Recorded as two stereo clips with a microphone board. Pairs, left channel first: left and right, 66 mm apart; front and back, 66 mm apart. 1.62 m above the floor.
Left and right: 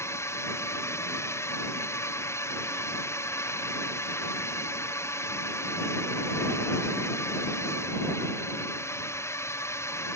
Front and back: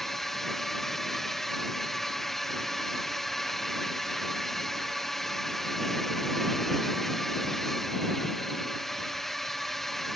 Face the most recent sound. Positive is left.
turn(degrees=85)